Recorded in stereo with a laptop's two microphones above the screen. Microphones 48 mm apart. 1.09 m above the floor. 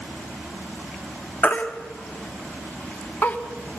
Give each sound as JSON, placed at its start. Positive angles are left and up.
{"t": 1.4, "sound": "a baby crying", "side_deg": 35, "distance_m": 1.1}